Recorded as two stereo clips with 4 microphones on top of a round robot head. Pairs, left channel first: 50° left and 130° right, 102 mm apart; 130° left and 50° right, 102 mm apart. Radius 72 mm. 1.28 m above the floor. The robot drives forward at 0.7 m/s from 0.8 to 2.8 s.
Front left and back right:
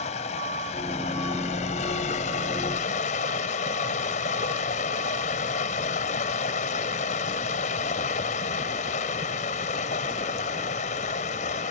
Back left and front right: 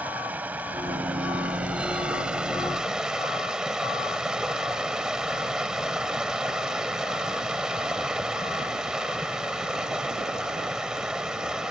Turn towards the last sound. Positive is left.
turn(degrees=35)